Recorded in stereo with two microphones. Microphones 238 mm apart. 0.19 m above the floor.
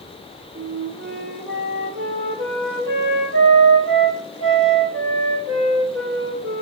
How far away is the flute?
About 4 m.